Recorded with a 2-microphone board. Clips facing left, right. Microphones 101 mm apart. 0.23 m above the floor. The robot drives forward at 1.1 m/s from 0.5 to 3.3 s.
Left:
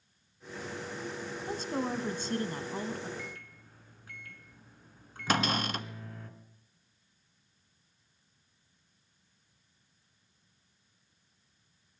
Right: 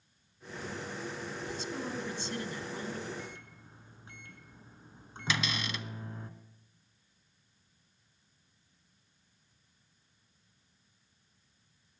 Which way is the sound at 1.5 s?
45° left (ahead or behind).